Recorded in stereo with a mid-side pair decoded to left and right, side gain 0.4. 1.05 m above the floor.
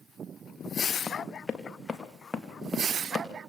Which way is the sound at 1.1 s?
30° left.